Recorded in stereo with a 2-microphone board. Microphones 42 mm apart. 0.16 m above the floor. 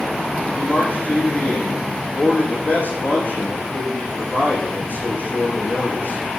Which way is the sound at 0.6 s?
55° left (ahead or behind).